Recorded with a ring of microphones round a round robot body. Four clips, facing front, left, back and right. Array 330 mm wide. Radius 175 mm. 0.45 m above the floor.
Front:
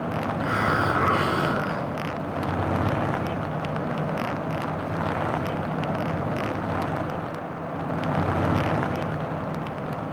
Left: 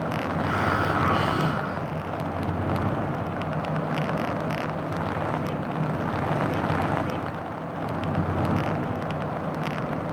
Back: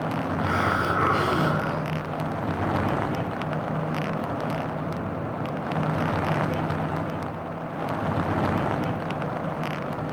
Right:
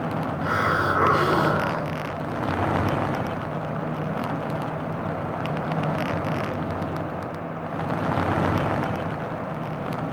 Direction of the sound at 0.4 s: 95° right.